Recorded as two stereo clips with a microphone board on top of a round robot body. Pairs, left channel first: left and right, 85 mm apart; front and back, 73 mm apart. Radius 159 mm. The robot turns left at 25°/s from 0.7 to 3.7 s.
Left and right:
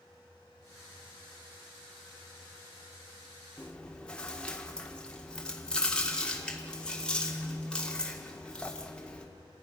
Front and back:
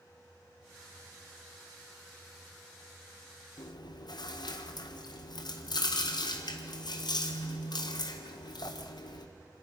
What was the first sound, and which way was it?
Chewing, 15° left.